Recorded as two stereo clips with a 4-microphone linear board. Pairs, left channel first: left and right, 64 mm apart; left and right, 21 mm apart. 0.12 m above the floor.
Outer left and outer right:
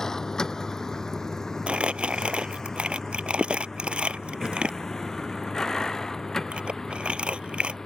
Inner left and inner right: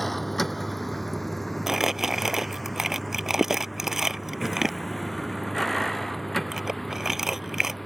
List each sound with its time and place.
0.0 s a vehicle: 10° left (ahead or behind)
1.7 s crumpling: 20° right (ahead or behind)